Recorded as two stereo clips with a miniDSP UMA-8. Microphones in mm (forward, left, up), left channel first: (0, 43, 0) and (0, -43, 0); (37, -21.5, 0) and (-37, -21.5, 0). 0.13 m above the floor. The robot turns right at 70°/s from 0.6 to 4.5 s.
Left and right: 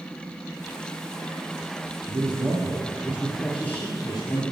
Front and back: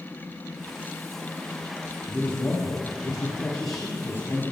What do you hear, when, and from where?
2.1 s a man speaking: 90° right, 3 m; by 4.4 s 75° left, 3 m